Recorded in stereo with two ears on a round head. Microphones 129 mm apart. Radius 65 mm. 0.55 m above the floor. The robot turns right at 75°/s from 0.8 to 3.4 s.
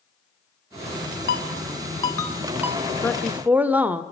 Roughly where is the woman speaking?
Behind.